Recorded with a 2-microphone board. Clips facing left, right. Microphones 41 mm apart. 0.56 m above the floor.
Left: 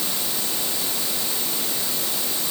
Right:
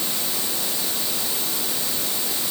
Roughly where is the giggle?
No giggle in this recording.